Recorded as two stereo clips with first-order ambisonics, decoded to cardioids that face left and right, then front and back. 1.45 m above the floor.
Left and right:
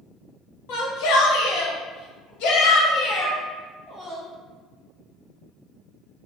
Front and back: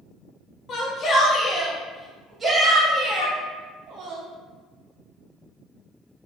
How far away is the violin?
About 1.0 m.